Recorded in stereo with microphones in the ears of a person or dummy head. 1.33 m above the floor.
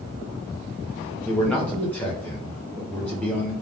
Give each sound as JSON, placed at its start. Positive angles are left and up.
{"t": 1.2, "sound": "a man speaking", "side_deg": 10, "distance_m": 0.7}